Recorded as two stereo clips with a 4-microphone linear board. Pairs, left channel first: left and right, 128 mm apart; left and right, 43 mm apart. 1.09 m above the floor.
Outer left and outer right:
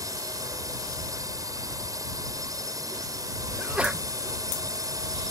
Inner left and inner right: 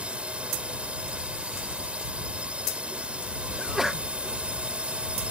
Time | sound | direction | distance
0.0 | a drone | 25° right (ahead or behind) | ?
3.6 | a sneeze | 10° right (ahead or behind) | ?